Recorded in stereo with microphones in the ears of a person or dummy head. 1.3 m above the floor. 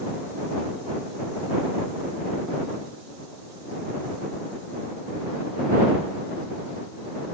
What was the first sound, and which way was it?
Only background noise.